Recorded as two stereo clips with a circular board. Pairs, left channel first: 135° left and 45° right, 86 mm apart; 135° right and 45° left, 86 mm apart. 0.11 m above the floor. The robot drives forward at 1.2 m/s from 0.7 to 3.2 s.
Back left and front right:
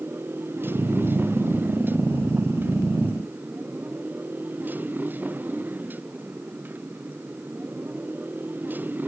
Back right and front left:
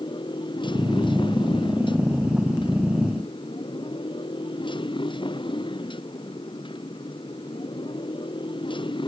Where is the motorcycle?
110° right; by 9.1 s 115° right.